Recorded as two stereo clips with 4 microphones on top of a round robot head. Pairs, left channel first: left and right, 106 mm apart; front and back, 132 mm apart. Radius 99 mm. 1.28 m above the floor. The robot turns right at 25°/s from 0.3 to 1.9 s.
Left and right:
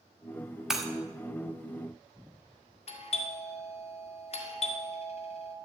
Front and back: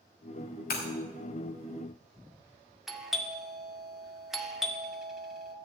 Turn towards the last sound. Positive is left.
turn(degrees=95)